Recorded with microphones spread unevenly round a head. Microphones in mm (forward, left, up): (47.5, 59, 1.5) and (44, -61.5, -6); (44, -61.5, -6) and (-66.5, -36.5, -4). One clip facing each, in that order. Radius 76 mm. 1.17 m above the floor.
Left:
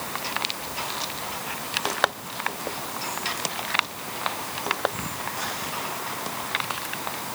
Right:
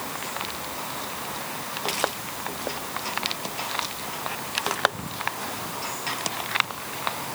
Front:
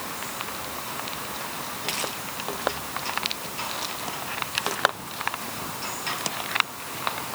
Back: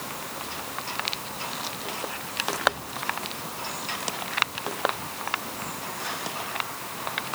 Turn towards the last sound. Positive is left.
No sound to turn to.